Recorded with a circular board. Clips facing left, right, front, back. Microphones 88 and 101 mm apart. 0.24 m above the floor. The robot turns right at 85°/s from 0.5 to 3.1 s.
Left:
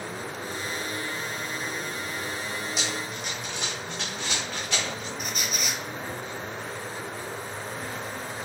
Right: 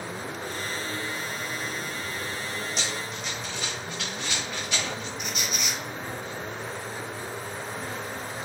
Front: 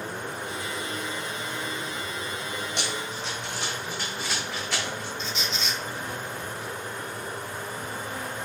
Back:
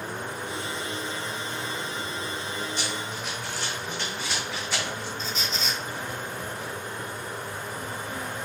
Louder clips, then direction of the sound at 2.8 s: Left 1 dB, even; 5° left.